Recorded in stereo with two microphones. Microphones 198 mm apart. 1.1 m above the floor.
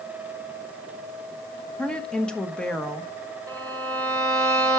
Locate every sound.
1.8 s a woman speaking: 5° left (ahead or behind), 1.3 m
3.5 s a violin: 10° left (ahead or behind), 3 m